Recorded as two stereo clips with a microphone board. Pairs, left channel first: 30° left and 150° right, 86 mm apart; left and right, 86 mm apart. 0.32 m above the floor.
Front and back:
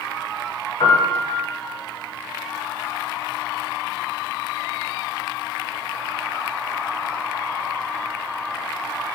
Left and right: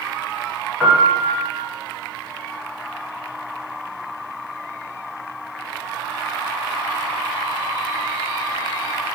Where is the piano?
Straight ahead, 0.9 m.